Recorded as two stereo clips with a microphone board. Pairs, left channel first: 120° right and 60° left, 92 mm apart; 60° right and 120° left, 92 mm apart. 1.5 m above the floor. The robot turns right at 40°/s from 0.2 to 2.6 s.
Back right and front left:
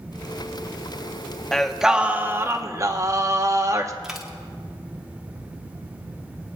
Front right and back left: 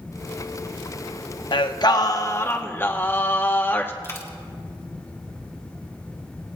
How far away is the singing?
About 0.7 m.